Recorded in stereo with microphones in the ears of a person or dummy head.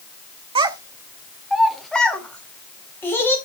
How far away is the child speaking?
About 1.1 m.